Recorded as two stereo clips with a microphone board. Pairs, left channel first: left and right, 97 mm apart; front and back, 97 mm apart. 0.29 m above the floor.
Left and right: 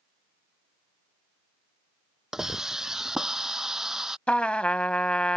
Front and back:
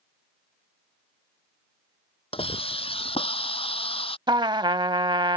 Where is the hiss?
5° right.